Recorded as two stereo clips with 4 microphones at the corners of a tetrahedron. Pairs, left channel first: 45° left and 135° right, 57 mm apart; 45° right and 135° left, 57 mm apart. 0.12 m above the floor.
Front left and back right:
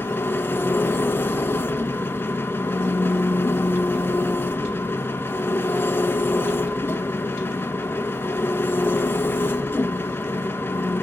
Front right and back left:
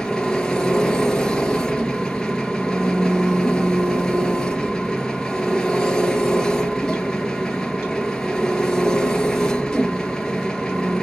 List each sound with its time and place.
0.0 s an engine running: 30° left, 1.2 m